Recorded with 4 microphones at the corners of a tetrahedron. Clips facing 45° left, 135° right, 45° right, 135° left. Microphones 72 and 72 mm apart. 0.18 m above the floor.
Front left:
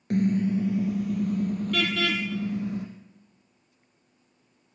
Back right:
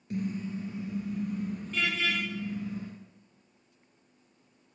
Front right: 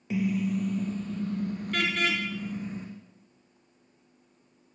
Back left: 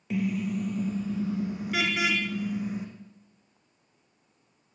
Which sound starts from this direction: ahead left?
A car horn, at 0.1 s.